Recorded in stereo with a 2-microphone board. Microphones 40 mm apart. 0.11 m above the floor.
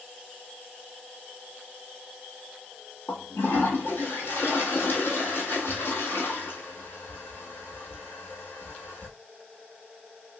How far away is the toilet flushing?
About 1.2 m.